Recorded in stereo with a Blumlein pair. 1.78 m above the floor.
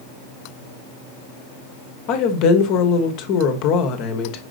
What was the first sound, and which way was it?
A woman speaking, 40° left.